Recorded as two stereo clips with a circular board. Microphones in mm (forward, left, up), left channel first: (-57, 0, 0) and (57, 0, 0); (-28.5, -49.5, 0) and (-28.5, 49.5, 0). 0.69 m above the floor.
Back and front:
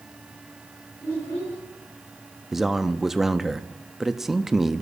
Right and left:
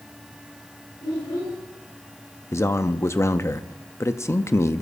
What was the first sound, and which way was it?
A child speaking, 115° right.